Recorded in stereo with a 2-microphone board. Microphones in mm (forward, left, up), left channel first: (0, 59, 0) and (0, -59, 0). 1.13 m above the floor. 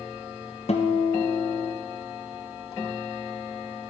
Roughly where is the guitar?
Left.